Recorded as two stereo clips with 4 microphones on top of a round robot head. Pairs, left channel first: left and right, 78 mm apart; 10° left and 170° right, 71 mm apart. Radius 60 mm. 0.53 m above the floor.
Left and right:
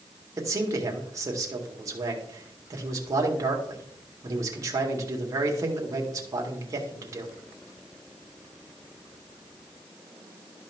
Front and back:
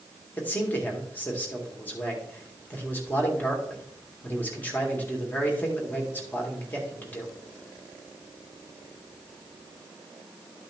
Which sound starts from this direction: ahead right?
A man speaking, at 0.4 s.